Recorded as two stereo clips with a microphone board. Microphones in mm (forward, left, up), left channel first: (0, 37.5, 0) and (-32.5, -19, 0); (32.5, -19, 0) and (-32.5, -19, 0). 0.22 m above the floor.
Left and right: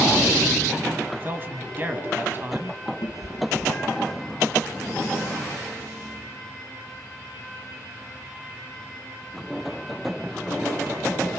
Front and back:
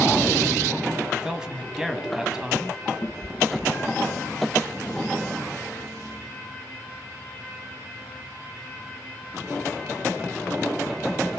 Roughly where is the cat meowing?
Left.